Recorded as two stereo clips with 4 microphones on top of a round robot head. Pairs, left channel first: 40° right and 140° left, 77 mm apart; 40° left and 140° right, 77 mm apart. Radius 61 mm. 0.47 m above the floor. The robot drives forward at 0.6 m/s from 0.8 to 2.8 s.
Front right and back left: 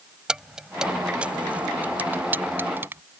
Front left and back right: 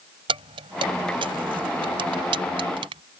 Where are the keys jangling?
140° right; by 3.0 s 155° right.